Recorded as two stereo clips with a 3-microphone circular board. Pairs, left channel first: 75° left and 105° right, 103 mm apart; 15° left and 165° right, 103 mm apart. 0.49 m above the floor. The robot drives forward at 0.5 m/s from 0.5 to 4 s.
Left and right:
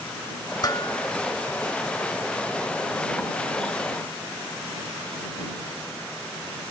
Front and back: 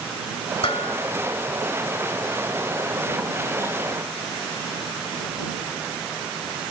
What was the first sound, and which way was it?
Dishes clattering, 30° left.